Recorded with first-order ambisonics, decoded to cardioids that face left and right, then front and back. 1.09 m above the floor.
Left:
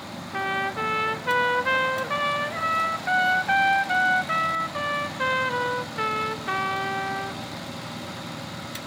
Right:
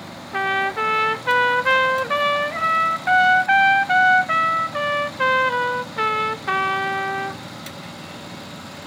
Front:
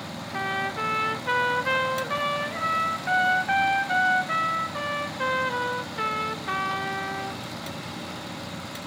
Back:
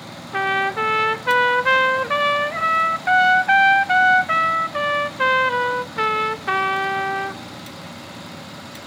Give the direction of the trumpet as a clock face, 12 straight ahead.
5 o'clock.